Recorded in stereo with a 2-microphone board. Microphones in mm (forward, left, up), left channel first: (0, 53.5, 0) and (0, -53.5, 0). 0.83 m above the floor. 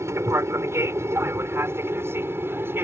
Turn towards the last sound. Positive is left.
turn(degrees=-20)  # may be behind; listen again after turning